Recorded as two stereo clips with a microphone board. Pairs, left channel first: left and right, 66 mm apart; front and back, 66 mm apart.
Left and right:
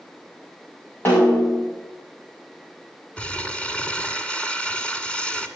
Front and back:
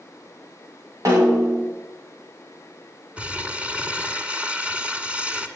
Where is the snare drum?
150° left, 6.5 m.